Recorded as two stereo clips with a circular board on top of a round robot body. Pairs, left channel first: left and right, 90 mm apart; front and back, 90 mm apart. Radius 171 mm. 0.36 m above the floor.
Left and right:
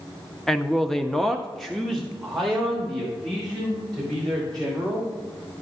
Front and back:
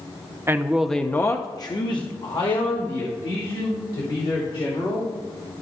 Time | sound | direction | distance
0.5 | a man speaking | 175° left | 0.9 m